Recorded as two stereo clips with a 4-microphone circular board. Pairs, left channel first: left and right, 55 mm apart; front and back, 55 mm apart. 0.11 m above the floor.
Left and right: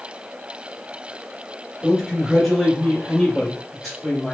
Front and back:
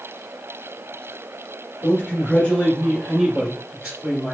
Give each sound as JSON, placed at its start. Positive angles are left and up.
{"t": 1.8, "sound": "a man speaking", "azimuth_deg": -5, "distance_m": 1.8}